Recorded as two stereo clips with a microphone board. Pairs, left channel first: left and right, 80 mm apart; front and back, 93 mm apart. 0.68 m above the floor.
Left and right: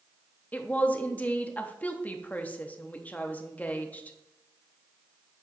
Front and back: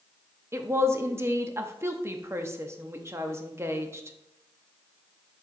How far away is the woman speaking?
About 0.7 m.